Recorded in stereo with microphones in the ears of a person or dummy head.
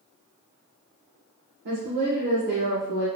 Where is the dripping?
I don't hear dripping.